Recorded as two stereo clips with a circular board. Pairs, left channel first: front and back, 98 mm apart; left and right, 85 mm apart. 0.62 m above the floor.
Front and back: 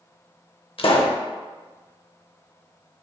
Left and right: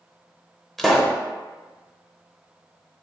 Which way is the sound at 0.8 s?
5° left.